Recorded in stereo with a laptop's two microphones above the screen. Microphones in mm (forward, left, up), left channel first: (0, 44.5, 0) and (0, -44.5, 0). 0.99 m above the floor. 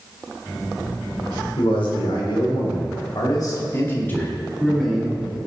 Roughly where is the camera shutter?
No camera shutter in this recording.